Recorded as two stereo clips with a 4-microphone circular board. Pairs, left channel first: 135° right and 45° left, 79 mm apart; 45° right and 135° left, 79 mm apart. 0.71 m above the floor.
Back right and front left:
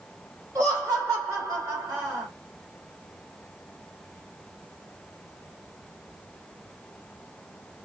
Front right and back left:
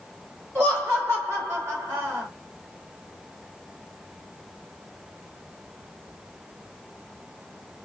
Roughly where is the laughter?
Left.